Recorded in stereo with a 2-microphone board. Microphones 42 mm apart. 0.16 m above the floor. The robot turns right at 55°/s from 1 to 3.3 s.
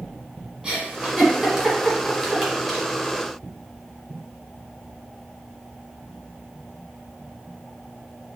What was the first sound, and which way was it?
A giggle, 15° right (ahead or behind).